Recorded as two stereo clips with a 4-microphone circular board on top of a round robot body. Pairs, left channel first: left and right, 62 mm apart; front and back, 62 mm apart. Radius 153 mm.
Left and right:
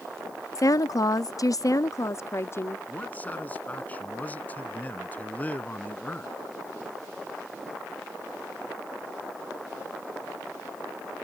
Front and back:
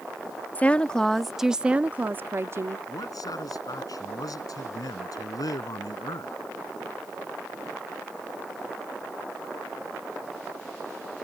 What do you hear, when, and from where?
0.6 s a woman speaking: 65° left; by 2.8 s 140° left
2.9 s a man speaking: 20° left